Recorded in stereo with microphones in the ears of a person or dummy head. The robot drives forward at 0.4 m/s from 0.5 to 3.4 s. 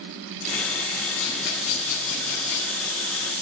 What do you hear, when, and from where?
1.2 s a rattle: 85° left, 5.5 m; by 2.8 s 90° left, 5.5 m